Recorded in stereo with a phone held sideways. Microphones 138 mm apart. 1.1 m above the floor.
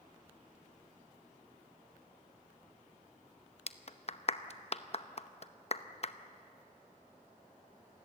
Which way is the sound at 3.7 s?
45° left (ahead or behind).